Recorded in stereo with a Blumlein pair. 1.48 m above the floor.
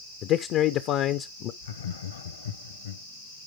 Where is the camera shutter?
I don't hear a camera shutter.